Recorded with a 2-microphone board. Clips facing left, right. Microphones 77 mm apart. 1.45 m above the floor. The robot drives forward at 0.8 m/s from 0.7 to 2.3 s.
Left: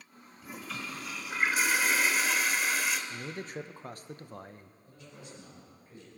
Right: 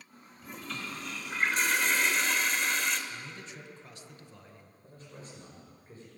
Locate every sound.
0.4 s a toilet flushing: 5° left (ahead or behind), 1.4 m
3.1 s a man speaking: 45° left (ahead or behind), 0.8 m
4.8 s a man speaking: 35° right (ahead or behind), 5 m